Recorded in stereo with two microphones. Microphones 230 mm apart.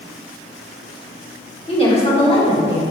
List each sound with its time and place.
1.7 s a woman speaking: 25° left (ahead or behind), 2.5 m